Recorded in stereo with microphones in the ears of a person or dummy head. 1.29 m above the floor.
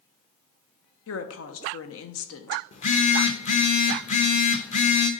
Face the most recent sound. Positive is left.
turn(degrees=40)  # may be behind; listen again after turning